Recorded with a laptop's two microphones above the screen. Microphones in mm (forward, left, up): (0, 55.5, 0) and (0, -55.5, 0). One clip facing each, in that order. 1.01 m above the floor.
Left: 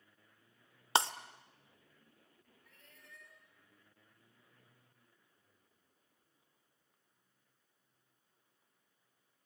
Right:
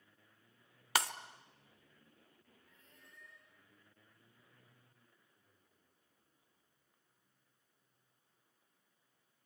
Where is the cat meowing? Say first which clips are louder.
Left 5 dB; 70° left (ahead or behind), 3.5 m.